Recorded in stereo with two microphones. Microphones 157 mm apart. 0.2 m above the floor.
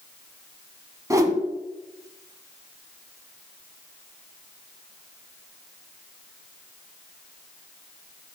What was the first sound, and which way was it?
A whoosh, 20° right (ahead or behind).